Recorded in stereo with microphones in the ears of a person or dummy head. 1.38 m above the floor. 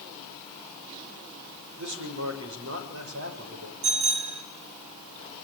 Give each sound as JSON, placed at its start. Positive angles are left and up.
{"t": 1.8, "sound": "a man speaking", "side_deg": -65, "distance_m": 6.0}
{"t": 3.8, "sound": "a bicycle bell", "side_deg": -85, "distance_m": 7.5}